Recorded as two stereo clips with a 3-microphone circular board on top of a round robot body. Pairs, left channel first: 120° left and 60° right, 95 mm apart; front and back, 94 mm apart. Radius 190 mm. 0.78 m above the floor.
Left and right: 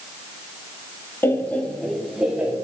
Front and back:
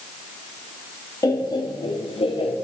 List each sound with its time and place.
1.2 s laughter: 55° left, 2 m; by 2.5 s 15° left, 2.5 m